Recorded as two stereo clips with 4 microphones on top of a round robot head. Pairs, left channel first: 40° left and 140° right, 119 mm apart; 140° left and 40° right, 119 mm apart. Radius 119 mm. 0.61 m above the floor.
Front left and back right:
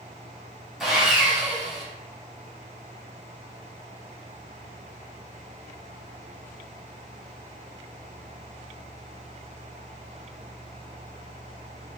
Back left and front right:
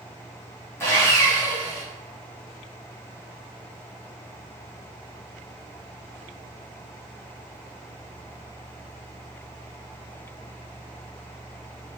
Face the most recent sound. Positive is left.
turn(degrees=140)